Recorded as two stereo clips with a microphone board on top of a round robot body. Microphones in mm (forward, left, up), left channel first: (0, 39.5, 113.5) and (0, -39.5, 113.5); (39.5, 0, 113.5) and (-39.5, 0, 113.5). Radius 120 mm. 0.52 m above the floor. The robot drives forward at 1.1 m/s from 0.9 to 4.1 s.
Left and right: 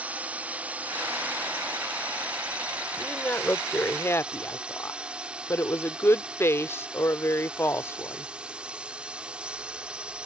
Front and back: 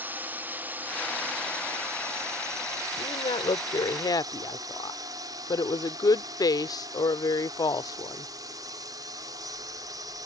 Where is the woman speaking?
20° left; by 8.3 s 30° left.